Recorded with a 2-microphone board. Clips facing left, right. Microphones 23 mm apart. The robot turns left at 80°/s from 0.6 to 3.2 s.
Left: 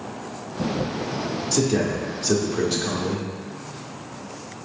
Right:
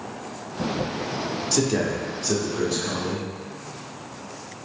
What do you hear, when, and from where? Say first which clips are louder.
1.5 s a man speaking: left 1 dB; 150° right, 0.7 m; by 3.3 s 75° left, 0.7 m